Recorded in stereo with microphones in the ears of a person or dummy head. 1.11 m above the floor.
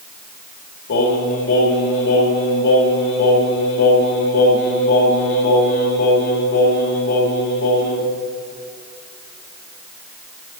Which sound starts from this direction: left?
Singing, at 0.9 s.